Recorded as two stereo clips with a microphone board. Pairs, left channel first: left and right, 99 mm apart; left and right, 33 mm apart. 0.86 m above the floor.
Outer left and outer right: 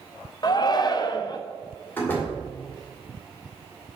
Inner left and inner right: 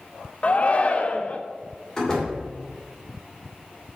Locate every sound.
0.4 s a shout: 40° left (ahead or behind), 0.5 m
2.0 s a door slam: 20° left (ahead or behind), 2 m